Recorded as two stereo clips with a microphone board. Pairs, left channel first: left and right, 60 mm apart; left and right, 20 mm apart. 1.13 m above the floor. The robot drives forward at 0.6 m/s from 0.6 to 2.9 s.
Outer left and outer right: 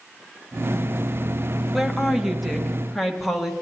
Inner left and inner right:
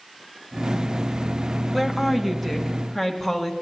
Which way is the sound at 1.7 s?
5° right (ahead or behind).